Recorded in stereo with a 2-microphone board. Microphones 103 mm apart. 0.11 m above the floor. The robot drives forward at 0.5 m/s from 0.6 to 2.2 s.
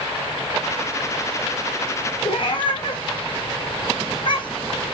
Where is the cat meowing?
45° left (ahead or behind), 1.4 m.